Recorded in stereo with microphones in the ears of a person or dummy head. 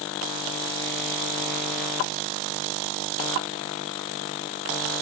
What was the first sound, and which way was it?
Only background noise.